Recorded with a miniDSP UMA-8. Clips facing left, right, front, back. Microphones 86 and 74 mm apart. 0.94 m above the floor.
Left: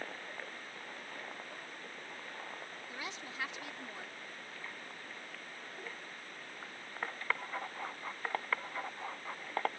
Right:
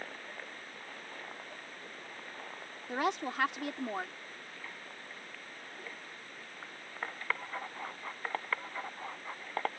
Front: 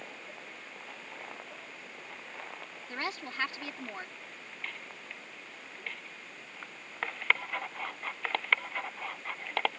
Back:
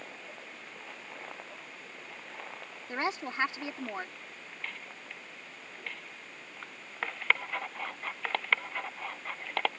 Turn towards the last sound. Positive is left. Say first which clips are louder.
# right 15 dB, back 5 dB
turn(degrees=-115)